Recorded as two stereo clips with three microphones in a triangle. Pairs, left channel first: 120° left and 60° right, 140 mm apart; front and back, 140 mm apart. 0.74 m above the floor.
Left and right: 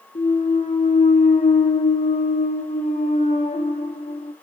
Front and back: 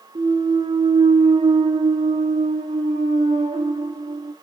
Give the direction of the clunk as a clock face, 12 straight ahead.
7 o'clock.